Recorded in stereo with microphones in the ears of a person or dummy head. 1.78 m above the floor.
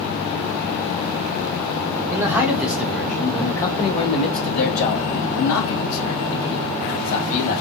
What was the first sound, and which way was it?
A man speaking, 10° right (ahead or behind).